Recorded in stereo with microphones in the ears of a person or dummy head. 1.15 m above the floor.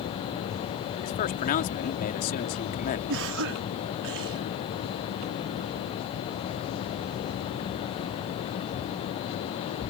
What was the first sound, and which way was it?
A man speaking, 40° left (ahead or behind).